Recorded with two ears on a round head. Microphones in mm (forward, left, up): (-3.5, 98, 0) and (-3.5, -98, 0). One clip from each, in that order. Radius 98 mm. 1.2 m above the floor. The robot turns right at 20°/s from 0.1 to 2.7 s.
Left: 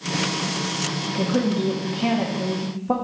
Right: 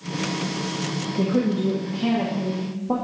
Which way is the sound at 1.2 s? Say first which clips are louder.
Even; 20° left.